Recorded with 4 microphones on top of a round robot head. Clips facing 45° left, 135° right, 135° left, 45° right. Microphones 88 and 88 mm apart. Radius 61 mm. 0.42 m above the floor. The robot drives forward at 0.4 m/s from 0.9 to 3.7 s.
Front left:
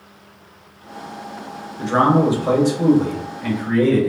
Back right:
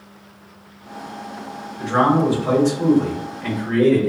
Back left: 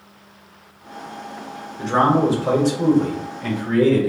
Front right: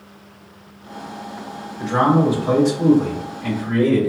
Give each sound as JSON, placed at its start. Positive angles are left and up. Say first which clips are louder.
{"t": 1.8, "sound": "a man speaking", "louder": "front left 1 dB, even", "azimuth_deg": 95, "distance_m": 1.2}